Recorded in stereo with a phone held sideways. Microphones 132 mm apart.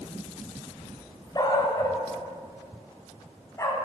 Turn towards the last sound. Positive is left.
turn(degrees=25)  # may be behind; listen again after turning